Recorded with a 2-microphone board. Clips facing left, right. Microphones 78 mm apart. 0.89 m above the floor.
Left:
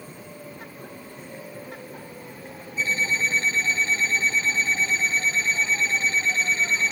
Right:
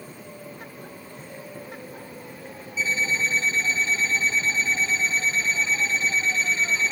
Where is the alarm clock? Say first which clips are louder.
Even; 65° left (ahead or behind), 5 m.